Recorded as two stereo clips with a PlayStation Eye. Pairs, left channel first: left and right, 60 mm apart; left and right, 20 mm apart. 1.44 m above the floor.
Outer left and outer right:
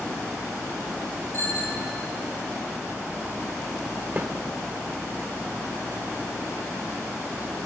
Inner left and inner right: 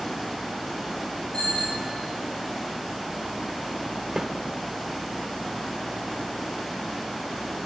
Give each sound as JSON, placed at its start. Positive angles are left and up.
{"t": 1.3, "sound": "a bicycle bell", "side_deg": 45, "distance_m": 3.5}
{"t": 4.2, "sound": "a snare drum", "side_deg": -30, "distance_m": 1.3}